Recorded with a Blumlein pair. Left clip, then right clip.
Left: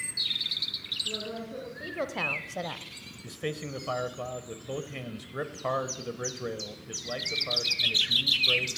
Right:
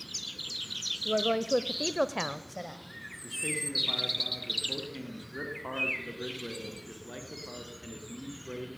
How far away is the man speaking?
About 1.1 m.